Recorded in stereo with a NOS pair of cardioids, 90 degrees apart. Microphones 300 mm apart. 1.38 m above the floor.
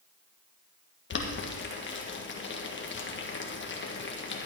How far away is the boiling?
About 1.8 m.